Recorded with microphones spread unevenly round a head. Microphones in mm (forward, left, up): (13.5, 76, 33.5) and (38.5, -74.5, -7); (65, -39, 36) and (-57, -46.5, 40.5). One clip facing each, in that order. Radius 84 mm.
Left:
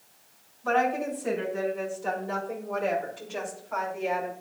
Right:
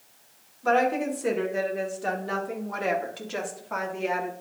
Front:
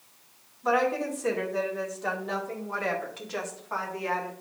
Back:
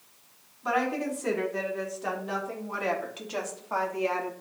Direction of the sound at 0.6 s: 85° right.